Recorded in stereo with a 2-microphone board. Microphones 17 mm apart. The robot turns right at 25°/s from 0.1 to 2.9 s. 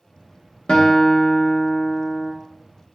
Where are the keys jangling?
I don't hear keys jangling.